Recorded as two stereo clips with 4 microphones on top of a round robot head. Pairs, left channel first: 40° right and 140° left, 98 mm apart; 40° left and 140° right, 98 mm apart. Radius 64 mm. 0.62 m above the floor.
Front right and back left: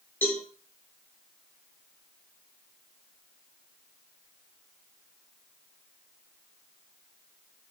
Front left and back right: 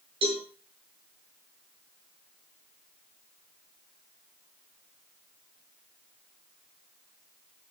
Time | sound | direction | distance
0.2 | a cowbell | 110° right | 5.5 m